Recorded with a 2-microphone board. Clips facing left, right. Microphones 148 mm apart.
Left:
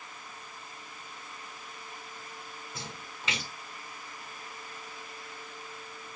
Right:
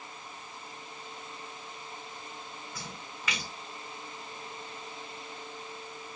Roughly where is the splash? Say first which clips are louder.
Even; left.